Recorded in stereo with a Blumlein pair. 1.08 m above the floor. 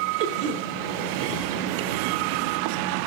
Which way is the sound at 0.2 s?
50° right.